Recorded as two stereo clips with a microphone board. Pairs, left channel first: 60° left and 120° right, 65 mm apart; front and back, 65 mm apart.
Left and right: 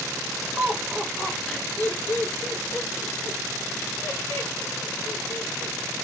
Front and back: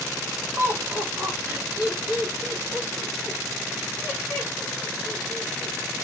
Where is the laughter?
160° right, 1.3 m; by 5.8 s 80° left, 4.5 m.